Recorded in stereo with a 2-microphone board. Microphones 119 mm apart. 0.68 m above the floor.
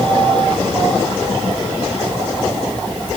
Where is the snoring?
No snoring in this recording.